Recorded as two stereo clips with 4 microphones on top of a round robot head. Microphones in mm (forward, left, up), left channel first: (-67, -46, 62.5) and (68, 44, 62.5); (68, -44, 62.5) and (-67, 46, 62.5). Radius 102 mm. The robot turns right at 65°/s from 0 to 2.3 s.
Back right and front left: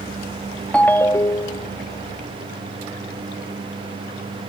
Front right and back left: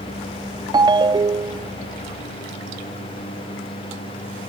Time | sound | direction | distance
0.7 | a ringtone | 140° left | ?